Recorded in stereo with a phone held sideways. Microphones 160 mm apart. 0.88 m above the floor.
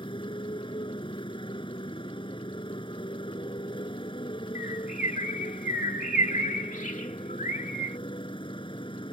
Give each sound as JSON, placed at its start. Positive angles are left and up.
{"t": 0.0, "sound": "a motorcycle", "side_deg": 30}
{"t": 4.5, "sound": "a bird", "side_deg": 55}